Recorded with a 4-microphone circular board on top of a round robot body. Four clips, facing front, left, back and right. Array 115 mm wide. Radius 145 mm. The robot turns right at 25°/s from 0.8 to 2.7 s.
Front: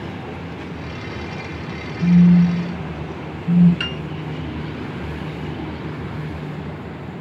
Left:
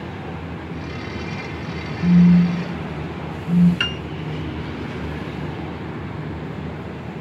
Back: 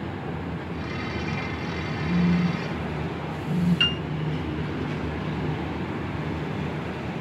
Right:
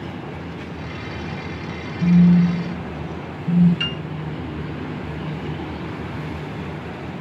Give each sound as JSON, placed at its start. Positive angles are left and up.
{"t": 2.0, "sound": "a phone buzzing", "azimuth_deg": -70, "distance_m": 1.2}
{"t": 3.8, "sound": "a piano", "azimuth_deg": 85, "distance_m": 1.2}